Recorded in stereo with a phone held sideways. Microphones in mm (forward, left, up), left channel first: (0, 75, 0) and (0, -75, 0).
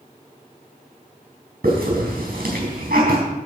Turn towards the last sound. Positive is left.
turn(degrees=-90)